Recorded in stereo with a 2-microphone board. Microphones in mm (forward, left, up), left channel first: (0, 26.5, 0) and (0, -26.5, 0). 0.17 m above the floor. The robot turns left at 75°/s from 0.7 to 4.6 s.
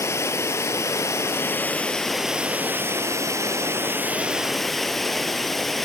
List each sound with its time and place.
0.0 s running water: 110° left, 0.8 m; by 5.9 s 175° left, 0.8 m